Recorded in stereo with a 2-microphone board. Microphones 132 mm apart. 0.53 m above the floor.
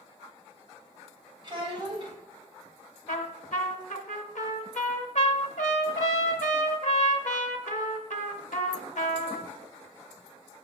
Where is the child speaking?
35° right (ahead or behind), 2.5 m.